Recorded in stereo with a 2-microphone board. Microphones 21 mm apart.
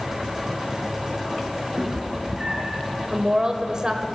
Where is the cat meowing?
50° right (ahead or behind), 2.5 m.